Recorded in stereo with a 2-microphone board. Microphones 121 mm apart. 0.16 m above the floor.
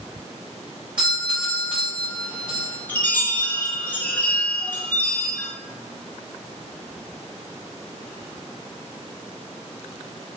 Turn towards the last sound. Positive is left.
turn(degrees=15)  # may be behind; listen again after turning